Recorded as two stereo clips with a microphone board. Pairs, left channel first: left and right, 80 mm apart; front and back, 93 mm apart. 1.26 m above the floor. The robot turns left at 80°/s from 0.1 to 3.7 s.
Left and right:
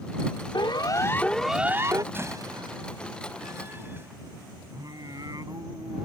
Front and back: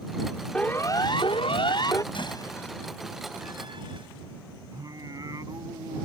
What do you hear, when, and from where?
0.5 s a siren: 80° left; by 2.0 s 50° right
2.1 s a door slam: 25° right; by 4.1 s 150° right
4.7 s singing: 130° right